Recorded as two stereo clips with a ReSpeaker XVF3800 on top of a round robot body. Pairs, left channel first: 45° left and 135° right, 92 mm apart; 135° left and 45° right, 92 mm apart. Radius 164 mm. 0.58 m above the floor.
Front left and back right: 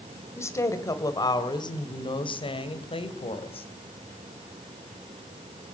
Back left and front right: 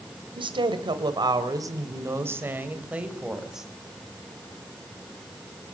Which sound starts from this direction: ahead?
A woman speaking, at 0.4 s.